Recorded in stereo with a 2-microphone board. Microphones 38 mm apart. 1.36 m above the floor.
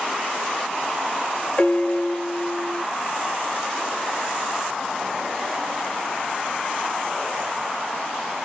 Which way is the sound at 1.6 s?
35° left (ahead or behind).